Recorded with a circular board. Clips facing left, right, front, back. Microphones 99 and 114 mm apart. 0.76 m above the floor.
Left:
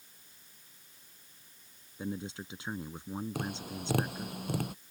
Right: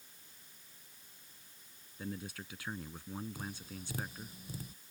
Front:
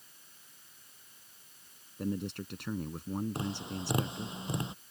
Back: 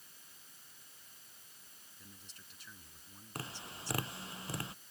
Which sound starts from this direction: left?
Tapping, at 3.4 s.